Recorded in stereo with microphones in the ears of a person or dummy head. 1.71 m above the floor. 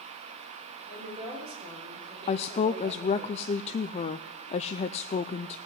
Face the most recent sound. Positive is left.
turn(degrees=35)  # may be behind; listen again after turning